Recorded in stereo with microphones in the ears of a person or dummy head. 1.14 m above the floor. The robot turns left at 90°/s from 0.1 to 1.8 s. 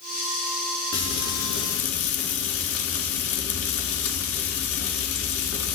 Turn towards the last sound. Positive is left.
turn(degrees=80)